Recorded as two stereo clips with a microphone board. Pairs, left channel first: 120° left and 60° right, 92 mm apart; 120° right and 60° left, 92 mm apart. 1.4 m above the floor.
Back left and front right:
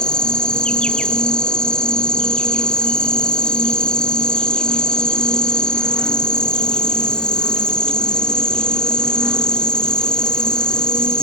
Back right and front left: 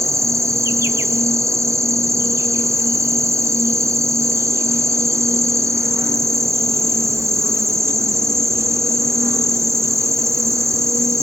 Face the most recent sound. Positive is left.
turn(degrees=45)